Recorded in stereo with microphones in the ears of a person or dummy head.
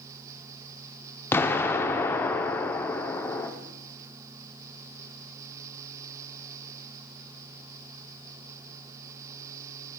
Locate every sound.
1.3 s an explosion: 15° left (ahead or behind), 0.7 m